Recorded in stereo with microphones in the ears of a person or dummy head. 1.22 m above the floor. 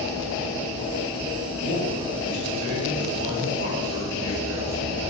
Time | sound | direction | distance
1.6 | a man speaking | 60° right (ahead or behind) | 4 m